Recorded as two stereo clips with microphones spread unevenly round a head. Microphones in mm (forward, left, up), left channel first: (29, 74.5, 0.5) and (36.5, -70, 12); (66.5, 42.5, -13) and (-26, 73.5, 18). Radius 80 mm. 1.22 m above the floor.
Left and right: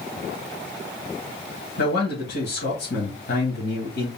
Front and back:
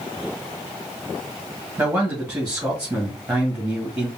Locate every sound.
1.8 s a man speaking: 85° left, 2.5 m